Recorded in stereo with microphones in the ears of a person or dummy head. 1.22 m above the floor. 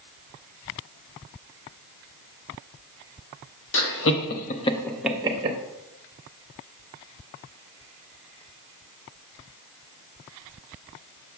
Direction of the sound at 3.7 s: 70° left (ahead or behind).